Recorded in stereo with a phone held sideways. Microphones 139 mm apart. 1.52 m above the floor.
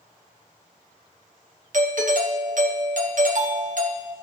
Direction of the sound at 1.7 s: 60° right (ahead or behind).